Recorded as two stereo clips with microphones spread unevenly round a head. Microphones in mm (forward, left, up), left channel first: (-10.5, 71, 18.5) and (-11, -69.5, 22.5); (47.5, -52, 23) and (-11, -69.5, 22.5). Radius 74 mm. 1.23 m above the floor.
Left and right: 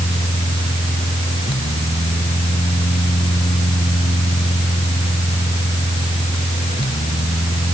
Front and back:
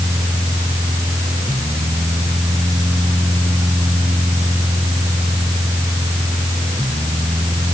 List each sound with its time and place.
0.0 s a fan: 145° left